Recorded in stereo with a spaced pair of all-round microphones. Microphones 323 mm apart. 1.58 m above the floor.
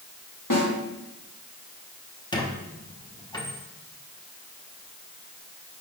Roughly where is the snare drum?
Left.